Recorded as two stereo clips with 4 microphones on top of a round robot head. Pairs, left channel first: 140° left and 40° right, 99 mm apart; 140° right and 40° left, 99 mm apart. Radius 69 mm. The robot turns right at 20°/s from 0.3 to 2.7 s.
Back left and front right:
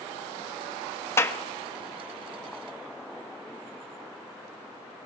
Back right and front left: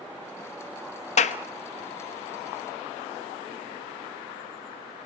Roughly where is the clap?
Behind right.